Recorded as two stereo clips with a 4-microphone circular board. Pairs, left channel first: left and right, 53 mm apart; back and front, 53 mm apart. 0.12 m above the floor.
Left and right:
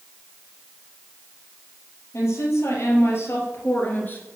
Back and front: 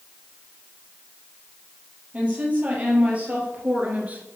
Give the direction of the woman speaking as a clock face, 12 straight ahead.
10 o'clock.